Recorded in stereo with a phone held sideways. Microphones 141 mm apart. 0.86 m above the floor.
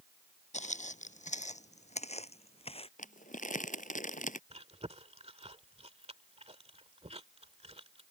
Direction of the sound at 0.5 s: 50° left (ahead or behind).